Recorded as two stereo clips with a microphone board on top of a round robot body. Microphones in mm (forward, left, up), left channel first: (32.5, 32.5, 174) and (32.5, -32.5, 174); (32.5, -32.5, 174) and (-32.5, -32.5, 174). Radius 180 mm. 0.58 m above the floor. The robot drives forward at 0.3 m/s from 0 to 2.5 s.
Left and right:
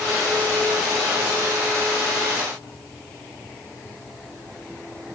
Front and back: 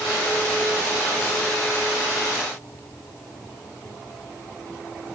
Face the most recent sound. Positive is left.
No sound to turn to.